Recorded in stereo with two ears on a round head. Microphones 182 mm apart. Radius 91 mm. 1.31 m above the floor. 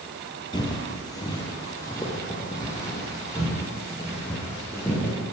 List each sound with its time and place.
0.5 s footsteps: 20° left (ahead or behind), 1.7 m; by 5.2 s 10° left (ahead or behind), 4 m